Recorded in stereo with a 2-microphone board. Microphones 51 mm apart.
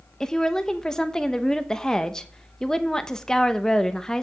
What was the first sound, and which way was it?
A woman speaking, 15° left (ahead or behind).